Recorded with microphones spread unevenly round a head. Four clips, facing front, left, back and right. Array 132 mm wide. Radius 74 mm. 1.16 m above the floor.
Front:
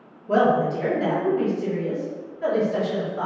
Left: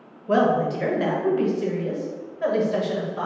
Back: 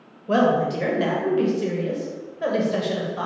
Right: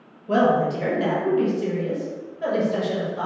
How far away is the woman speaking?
About 1.4 m.